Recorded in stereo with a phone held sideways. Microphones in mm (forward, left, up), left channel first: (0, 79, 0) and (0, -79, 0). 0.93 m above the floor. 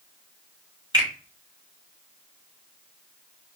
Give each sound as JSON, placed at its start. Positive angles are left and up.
{"t": 0.9, "sound": "a finger snap", "side_deg": -25, "distance_m": 1.5}